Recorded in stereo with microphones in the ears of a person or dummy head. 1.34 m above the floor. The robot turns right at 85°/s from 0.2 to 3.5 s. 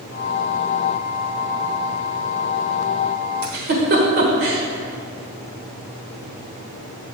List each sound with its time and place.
3.4 s a giggle: 45° right (ahead or behind), 1.4 m; by 4.6 s 50° right (ahead or behind), 1.4 m